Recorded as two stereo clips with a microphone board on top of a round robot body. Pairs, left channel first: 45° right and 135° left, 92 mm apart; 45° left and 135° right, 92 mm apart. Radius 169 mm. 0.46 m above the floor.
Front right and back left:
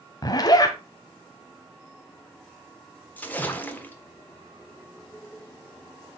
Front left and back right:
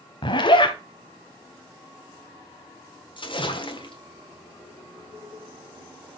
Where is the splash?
25° left, 1.6 m.